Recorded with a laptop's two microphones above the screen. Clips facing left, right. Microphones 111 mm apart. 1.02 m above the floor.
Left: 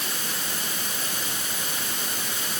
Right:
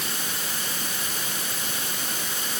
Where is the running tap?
I don't hear a running tap.